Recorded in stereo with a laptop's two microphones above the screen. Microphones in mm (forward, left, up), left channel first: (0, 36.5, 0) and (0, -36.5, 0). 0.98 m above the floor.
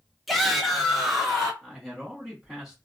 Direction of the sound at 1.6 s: 5° right (ahead or behind).